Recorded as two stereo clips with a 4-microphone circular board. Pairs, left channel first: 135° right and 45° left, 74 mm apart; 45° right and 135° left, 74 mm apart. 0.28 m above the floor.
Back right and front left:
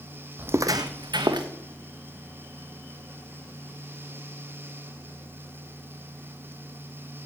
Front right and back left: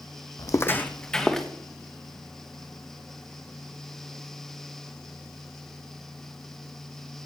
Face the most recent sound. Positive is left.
turn(degrees=40)